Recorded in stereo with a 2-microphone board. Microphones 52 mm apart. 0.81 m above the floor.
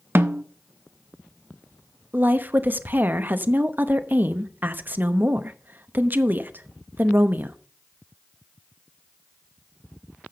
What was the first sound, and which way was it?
A snare drum, 50° right (ahead or behind).